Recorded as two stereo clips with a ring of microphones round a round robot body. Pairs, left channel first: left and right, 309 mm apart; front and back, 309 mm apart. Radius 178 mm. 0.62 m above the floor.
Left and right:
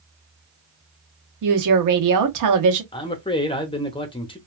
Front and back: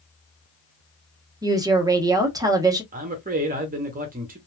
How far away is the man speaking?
About 0.8 m.